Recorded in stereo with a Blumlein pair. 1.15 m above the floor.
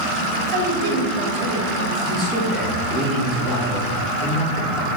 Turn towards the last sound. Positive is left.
turn(degrees=-15)